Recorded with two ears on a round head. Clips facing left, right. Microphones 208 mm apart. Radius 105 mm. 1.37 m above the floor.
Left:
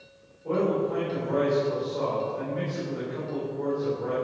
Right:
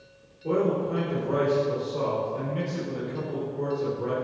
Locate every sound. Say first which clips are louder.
0.4 s a man speaking: even; 45° right (ahead or behind), 4 m